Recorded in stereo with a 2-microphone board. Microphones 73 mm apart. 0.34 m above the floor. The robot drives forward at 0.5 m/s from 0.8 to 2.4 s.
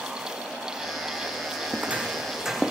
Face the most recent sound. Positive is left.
turn(degrees=0)  # may be behind; listen again after turning